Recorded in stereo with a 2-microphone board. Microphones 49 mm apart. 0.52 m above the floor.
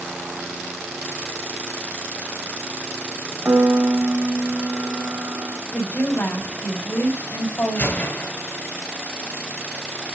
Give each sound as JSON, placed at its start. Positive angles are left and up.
{"t": 3.5, "sound": "a piano", "side_deg": -40, "distance_m": 1.1}
{"t": 5.7, "sound": "a woman speaking", "side_deg": 70, "distance_m": 3.5}
{"t": 7.8, "sound": "a gunshot", "side_deg": 50, "distance_m": 1.6}